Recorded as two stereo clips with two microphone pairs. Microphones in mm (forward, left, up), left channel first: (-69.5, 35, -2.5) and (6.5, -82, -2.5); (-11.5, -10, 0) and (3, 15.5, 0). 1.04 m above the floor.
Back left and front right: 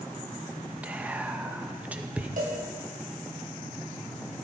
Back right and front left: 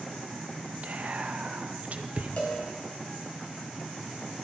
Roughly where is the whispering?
Ahead left.